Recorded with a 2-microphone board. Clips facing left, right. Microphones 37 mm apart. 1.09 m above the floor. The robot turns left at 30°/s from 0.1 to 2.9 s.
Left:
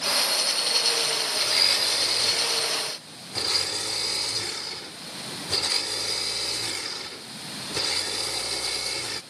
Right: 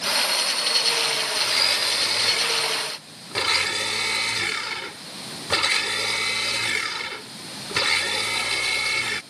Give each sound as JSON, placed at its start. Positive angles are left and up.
{"t": 1.4, "sound": "a blender", "azimuth_deg": -10}